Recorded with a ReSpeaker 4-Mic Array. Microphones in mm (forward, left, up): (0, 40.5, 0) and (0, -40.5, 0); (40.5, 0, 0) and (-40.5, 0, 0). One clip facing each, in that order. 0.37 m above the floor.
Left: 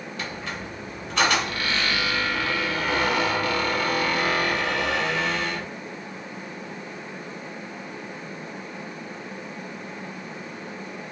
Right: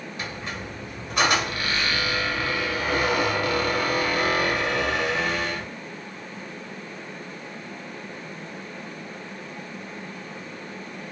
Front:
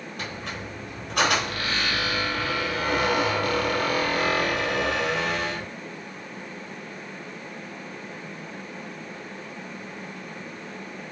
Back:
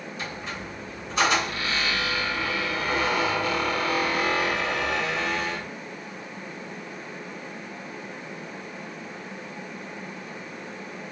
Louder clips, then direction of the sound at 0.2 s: Left 1 dB, front 1 dB; 15° right.